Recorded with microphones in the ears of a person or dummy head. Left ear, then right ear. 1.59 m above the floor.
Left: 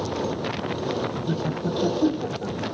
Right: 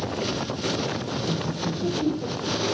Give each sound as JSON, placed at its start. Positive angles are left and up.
{"t": 1.3, "sound": "laughter", "side_deg": 65, "distance_m": 1.3}